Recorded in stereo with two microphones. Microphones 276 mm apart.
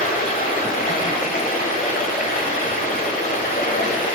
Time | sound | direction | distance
0.0 | running water | 30° left (ahead or behind) | 1.4 m